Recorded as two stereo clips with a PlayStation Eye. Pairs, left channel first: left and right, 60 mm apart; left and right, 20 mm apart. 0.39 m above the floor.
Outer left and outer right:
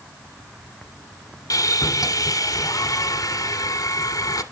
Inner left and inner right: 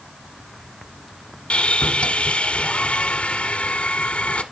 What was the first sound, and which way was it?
Sawing, 85° left.